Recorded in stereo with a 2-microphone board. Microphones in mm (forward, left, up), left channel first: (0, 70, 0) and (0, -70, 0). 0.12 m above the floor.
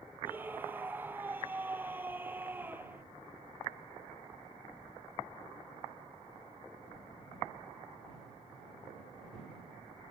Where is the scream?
15° right (ahead or behind).